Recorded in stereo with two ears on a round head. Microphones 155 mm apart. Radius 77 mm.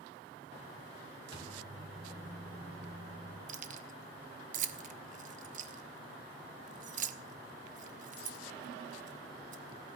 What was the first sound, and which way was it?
A microwave, 25° right (ahead or behind).